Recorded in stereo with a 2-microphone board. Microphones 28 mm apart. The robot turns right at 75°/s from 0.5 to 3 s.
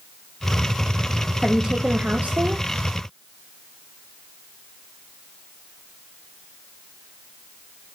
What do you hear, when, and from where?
1.4 s a woman speaking: 170° right, 0.7 m; by 2.6 s 80° right, 0.7 m